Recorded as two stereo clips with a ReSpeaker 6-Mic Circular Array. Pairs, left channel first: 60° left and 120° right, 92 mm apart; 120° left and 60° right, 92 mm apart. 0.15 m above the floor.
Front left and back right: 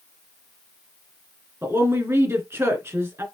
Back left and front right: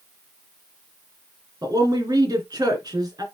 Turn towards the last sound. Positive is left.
turn(degrees=-70)